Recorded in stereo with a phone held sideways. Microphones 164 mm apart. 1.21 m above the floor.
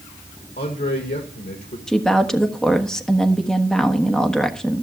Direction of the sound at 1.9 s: 5° left (ahead or behind).